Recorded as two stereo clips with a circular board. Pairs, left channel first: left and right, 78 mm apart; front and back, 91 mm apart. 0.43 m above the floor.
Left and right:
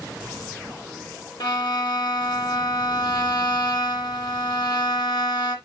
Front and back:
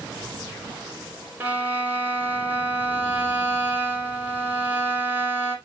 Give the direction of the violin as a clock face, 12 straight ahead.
8 o'clock.